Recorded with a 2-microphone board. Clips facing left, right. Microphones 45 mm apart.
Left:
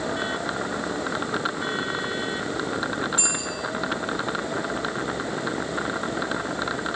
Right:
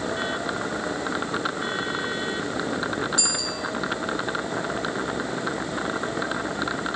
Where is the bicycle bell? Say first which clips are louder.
Even; 35° left (ahead or behind), 8.5 m.